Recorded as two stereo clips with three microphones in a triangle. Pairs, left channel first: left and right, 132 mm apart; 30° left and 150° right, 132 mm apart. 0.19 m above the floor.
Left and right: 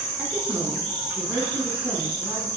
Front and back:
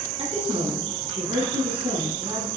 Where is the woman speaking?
165° right, 2 m.